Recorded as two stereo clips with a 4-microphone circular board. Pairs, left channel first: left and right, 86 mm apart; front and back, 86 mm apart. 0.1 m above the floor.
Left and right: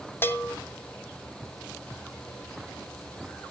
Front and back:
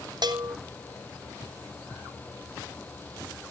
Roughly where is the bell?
Behind left.